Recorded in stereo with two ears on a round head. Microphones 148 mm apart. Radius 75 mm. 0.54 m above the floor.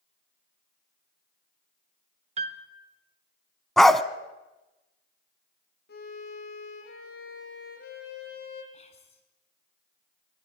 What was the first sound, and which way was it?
A piano, 40° right (ahead or behind).